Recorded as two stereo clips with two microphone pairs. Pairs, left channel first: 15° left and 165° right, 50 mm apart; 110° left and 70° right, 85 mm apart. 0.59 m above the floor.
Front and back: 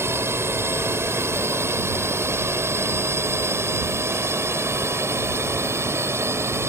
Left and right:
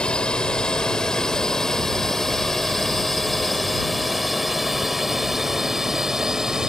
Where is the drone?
175° right; by 6.7 s 155° right.